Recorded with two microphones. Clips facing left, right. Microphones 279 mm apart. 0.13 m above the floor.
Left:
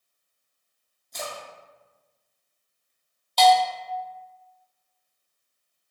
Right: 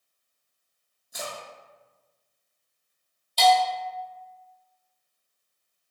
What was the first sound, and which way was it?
A splash, 10° right (ahead or behind).